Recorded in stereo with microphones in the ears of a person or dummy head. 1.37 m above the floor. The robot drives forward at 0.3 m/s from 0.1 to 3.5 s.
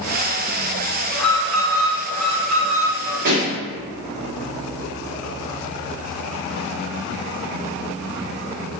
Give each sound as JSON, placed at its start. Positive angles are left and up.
{"t": 1.1, "sound": "an alarm", "side_deg": 10, "distance_m": 2.5}
{"t": 3.2, "sound": "a pop", "side_deg": -60, "distance_m": 1.5}